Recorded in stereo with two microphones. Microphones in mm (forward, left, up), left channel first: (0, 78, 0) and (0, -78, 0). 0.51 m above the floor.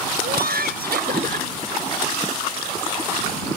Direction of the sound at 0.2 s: 80° right.